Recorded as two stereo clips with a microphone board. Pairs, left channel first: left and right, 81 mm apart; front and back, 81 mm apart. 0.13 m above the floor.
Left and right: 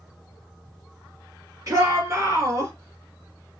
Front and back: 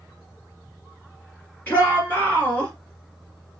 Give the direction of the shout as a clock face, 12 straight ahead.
2 o'clock.